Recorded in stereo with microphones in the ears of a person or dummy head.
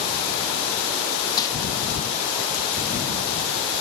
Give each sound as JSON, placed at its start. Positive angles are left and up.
{"t": 1.4, "sound": "crumpling", "side_deg": 15, "distance_m": 0.9}